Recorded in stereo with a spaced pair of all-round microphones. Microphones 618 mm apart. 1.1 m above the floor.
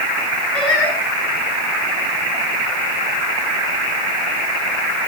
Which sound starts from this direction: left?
Singing, at 0.5 s.